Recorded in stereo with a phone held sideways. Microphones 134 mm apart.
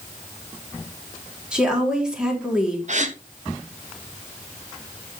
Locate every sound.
1.5 s a woman speaking: 5° right (ahead or behind), 3.5 m
2.9 s a gasp: 55° right (ahead or behind), 1.2 m